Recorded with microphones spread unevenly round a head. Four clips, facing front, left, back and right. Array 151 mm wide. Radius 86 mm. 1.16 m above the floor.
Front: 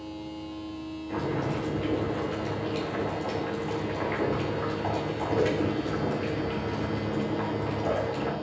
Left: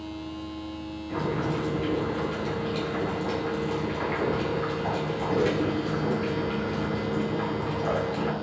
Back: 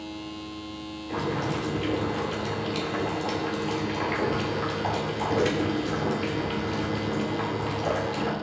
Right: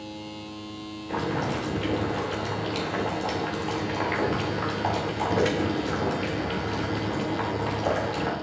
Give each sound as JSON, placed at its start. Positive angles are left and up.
{"t": 1.1, "sound": "boiling", "azimuth_deg": -115, "distance_m": 4.0}